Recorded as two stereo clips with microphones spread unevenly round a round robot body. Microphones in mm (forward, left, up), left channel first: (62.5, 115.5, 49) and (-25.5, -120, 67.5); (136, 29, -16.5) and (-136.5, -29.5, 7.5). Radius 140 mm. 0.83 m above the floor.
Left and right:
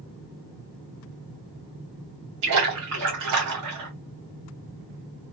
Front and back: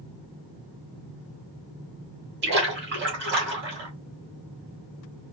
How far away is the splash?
About 2 m.